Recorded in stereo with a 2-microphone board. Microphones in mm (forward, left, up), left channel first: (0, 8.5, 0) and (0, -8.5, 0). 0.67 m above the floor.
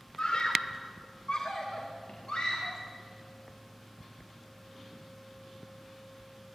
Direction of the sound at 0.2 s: 55° left (ahead or behind).